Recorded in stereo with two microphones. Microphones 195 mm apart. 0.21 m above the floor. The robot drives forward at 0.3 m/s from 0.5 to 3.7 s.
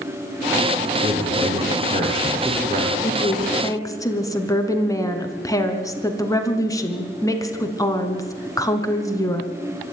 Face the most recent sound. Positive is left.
turn(degrees=15)  # may be behind; listen again after turning